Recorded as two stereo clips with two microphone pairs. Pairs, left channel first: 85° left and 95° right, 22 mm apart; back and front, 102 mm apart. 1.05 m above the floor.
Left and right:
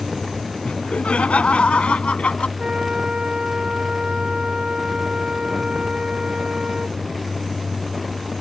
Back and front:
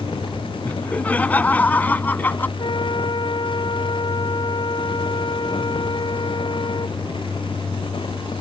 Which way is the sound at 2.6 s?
145° right.